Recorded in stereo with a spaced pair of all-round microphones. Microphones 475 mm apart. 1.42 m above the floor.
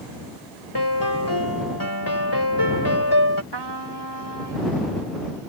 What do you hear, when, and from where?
0.8 s a piano: 50° left (ahead or behind)
3.5 s a trumpet: 55° right (ahead or behind)